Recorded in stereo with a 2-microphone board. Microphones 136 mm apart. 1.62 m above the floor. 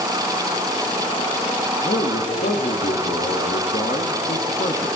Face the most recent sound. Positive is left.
turn(degrees=75)  # may be behind; listen again after turning